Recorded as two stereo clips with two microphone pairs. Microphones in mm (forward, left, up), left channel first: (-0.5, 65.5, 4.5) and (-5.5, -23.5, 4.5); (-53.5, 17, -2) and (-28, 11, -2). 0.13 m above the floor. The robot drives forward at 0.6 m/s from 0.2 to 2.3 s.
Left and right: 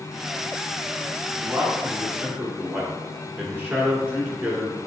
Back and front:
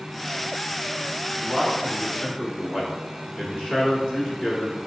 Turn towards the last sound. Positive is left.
turn(degrees=-150)